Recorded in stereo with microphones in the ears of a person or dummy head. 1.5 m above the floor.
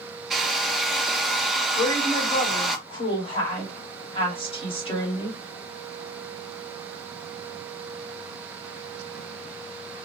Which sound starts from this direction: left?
A woman speaking, at 1.8 s.